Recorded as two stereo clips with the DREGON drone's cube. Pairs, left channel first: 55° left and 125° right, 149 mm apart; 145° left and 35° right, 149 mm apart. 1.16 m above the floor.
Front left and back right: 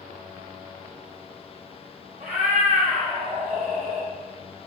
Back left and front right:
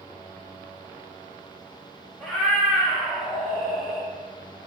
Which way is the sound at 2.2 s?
125° right.